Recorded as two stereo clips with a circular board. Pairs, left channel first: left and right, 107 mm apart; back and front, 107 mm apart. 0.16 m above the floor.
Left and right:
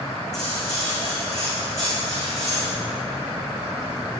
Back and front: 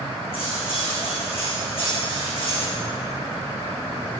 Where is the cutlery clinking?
145° left, 5.5 m.